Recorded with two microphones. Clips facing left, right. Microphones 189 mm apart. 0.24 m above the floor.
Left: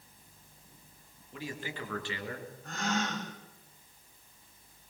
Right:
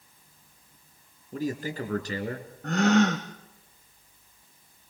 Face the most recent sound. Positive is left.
turn(degrees=-70)  # may be behind; listen again after turning